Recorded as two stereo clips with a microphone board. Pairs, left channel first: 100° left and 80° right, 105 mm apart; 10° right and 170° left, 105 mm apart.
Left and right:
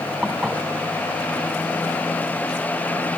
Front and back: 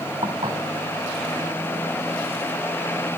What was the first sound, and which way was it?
Dishes clattering, 155° right.